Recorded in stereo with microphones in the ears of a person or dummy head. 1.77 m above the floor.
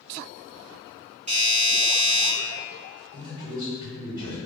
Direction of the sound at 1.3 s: 30° right (ahead or behind).